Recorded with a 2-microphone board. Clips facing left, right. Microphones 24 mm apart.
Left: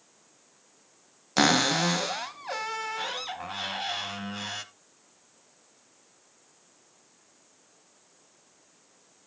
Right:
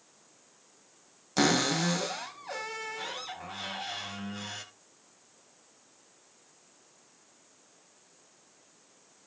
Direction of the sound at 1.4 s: 35° left (ahead or behind).